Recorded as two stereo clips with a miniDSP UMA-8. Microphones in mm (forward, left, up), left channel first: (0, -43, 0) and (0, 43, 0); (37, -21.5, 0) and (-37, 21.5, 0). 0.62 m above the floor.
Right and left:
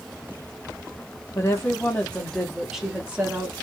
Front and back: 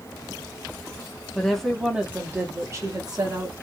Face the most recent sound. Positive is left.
turn(degrees=155)